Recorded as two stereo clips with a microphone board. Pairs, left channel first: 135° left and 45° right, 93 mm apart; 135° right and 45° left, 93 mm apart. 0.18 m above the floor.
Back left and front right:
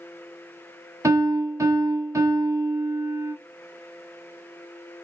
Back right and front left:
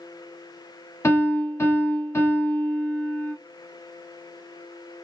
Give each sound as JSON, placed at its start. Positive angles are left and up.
{"t": 1.0, "sound": "a piano", "azimuth_deg": -80, "distance_m": 1.0}